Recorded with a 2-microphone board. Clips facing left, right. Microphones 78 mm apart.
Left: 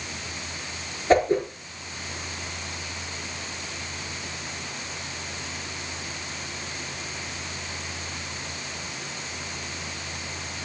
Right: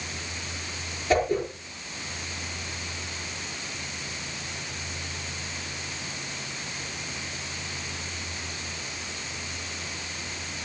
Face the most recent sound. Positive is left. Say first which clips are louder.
# left 4 dB
turn(degrees=40)  # may be behind; listen again after turning